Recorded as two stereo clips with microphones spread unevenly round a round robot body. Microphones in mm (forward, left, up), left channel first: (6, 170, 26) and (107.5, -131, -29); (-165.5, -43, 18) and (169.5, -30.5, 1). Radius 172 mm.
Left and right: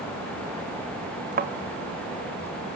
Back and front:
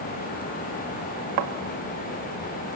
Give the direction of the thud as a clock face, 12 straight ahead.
12 o'clock.